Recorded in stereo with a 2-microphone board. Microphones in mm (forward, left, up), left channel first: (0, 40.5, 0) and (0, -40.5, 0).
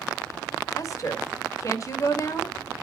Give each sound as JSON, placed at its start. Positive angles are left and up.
{"t": 0.8, "sound": "a woman speaking", "side_deg": 45, "distance_m": 1.9}